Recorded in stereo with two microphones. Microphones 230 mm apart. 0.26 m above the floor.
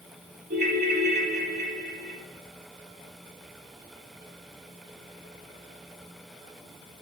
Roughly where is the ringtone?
Right.